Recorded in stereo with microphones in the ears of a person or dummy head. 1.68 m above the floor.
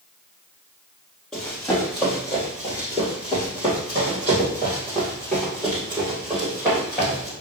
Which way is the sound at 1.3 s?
Centre (ahead or behind).